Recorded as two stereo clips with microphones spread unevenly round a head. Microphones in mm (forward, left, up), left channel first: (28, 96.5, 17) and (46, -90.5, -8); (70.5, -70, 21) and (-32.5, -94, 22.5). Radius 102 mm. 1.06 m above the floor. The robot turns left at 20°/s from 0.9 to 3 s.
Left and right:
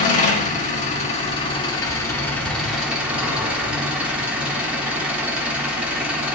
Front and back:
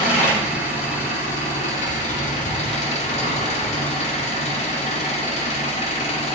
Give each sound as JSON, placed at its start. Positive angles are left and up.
{"t": 0.0, "sound": "an engine running", "azimuth_deg": 40, "distance_m": 2.5}